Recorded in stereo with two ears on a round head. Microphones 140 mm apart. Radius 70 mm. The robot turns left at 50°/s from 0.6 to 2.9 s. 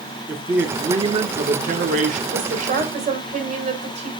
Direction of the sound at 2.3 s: 70° right (ahead or behind).